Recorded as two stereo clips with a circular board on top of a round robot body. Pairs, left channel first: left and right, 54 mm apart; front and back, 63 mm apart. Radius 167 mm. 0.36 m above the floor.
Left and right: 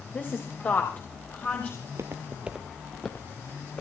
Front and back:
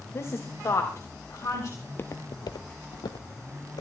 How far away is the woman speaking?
About 3 m.